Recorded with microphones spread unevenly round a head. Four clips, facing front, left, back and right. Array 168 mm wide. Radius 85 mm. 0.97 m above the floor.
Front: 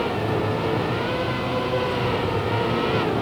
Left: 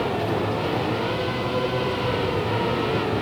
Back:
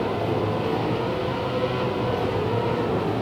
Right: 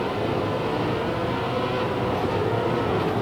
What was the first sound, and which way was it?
Only background noise.